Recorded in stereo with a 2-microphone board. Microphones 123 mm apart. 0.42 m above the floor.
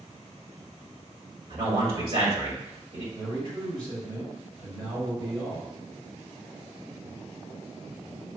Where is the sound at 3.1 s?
50° right (ahead or behind), 1.8 m.